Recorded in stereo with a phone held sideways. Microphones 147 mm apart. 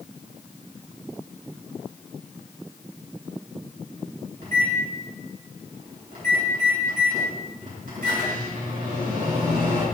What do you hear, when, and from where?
4.4 s a microwave: 65° right (ahead or behind), 5 m